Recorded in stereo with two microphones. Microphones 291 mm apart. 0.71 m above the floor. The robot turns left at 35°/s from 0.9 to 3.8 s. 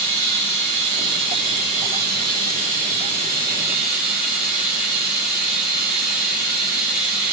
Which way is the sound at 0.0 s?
75° right.